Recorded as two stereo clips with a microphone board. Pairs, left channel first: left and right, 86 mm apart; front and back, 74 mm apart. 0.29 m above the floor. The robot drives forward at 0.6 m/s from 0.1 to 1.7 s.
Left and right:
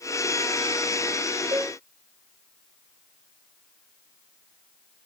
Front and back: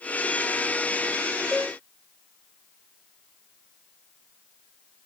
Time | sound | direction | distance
1.5 | a cowbell | 85° right | 3 m